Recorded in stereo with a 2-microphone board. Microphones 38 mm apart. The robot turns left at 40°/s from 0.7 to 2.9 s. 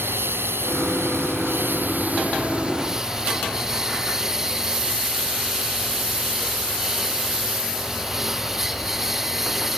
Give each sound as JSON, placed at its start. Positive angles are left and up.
{"t": 0.0, "sound": "a lawn mower", "side_deg": -75}